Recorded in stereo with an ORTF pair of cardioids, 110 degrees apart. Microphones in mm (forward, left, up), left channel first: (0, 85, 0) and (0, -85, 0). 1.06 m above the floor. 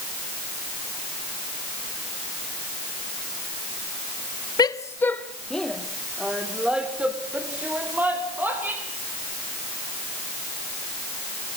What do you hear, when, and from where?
4.6 s a woman speaking: 25° left, 1.0 m; by 8.8 s 10° right, 4.5 m